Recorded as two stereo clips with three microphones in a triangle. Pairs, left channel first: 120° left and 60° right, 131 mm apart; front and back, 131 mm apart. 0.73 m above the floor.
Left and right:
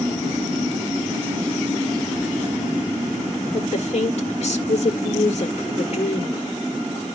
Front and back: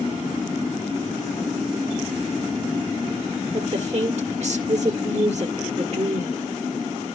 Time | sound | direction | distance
3.5 | a woman speaking | 150° left | 1.5 m